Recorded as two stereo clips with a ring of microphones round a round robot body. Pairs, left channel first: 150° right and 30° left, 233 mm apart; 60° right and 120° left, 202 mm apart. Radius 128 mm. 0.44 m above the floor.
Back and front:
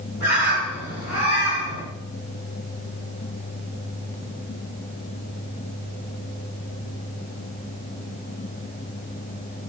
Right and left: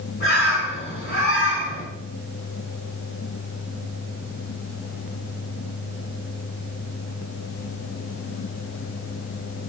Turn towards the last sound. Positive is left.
turn(degrees=-105)